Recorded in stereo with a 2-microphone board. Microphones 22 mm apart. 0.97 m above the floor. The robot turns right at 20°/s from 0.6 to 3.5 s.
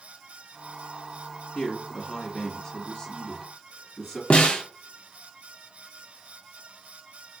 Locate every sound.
1.6 s a man speaking: 120° left, 1.8 m; by 4.2 s 160° left, 1.8 m
4.3 s a snare drum: 60° left (ahead or behind), 0.6 m